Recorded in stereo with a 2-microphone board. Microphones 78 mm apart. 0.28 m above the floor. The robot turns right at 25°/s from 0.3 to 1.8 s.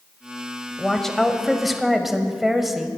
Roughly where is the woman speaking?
Centre.